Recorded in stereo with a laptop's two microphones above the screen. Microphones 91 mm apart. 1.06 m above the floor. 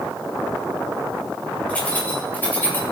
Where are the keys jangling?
15° left (ahead or behind), 4 m; by 2.8 s 25° left (ahead or behind), 2.5 m.